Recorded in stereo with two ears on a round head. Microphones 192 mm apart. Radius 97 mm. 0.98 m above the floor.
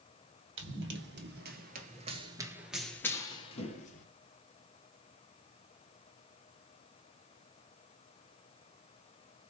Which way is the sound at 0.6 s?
60° right (ahead or behind).